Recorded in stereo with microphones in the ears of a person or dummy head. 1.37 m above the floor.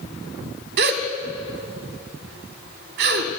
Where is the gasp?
55° right (ahead or behind), 1.7 m.